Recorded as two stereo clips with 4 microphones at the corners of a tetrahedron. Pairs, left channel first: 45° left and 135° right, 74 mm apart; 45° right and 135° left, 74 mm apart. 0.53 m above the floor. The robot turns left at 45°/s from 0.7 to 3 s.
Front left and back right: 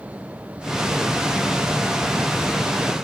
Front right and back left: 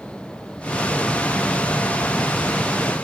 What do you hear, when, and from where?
Only background noise.